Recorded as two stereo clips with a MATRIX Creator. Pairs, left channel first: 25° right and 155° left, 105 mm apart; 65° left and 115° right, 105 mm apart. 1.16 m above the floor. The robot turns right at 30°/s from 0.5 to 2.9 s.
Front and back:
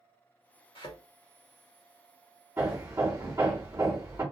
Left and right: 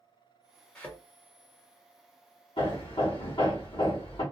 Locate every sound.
0.8 s a thud: 10° right, 1.4 m; by 1.0 s 5° right, 1.4 m
2.6 s hammering: 90° left, 1.4 m; by 4.2 s 100° left, 1.4 m